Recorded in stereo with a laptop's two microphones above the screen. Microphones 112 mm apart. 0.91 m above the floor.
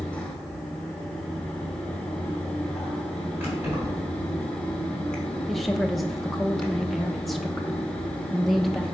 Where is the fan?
10° left (ahead or behind), 1.0 m.